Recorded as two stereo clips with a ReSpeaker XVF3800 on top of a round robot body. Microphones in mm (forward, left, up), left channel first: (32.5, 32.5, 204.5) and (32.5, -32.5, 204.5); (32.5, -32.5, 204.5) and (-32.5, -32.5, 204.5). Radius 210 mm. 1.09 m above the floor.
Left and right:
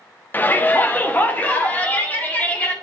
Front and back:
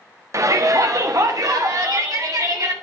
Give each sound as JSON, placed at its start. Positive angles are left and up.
{"t": 0.3, "sound": "a shout", "azimuth_deg": 150, "distance_m": 0.9}